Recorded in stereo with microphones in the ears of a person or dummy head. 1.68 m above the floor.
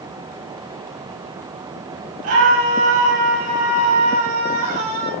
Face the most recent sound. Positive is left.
turn(degrees=-40)  # may be behind; listen again after turning